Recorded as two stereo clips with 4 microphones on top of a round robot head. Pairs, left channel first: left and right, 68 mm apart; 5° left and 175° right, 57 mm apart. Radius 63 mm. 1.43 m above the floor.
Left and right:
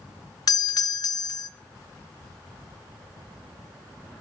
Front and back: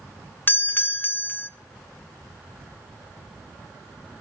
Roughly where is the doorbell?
Ahead left.